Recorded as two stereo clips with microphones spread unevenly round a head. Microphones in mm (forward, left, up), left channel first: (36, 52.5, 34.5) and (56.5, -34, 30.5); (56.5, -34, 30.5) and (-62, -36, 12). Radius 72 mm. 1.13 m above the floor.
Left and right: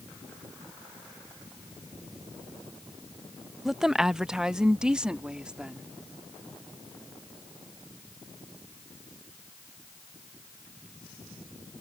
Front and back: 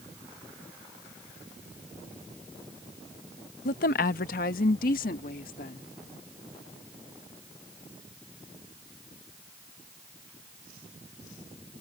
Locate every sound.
3.6 s a woman speaking: 10° left; by 5.9 s 5° left